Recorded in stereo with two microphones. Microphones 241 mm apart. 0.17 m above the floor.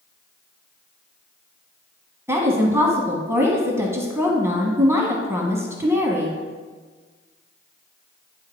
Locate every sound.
2.3 s a woman speaking: 10° right (ahead or behind), 1.1 m